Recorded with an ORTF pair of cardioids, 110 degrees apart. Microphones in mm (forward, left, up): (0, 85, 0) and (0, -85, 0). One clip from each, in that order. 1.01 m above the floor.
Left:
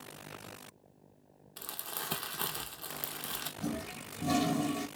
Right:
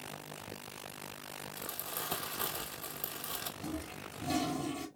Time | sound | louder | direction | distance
1.6 | crumpling | left 2 dB | 15° left | 0.7 m
3.6 | a toilet flushing | left 2 dB | 40° left | 1.0 m